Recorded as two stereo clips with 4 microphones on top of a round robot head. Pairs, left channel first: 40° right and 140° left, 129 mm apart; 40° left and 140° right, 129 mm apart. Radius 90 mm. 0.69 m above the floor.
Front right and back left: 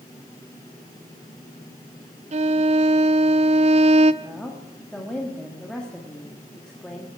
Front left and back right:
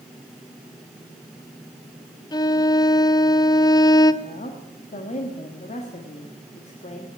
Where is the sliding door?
I don't hear a sliding door.